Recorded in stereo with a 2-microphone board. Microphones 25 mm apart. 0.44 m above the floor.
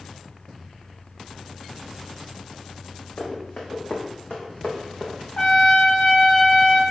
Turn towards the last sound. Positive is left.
turn(degrees=45)  # may be behind; listen again after turning